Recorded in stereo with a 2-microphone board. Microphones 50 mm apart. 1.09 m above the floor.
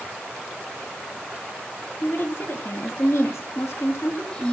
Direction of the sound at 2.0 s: 50° left (ahead or behind).